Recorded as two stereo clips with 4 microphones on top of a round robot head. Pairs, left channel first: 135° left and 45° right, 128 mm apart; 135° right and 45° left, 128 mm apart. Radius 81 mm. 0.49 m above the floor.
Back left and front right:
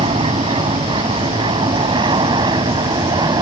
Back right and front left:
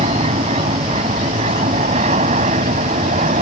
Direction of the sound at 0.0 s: 5° left.